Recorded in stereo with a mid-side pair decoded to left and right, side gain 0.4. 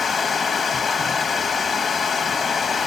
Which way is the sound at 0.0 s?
55° left.